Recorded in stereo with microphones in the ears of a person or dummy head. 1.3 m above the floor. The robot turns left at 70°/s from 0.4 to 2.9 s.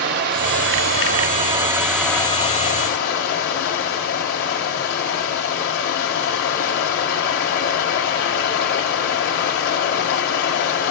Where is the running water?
70° right, 2 m; by 10.9 s 115° left, 2 m.